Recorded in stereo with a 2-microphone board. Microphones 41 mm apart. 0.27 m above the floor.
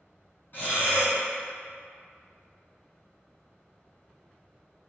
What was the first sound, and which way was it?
Breathing, 55° left (ahead or behind).